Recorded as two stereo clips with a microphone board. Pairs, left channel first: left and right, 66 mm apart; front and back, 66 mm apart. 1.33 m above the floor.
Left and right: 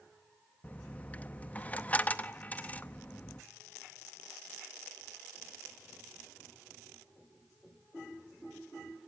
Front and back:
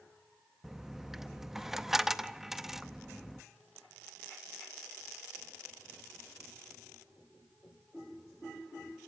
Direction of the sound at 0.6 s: 105° left.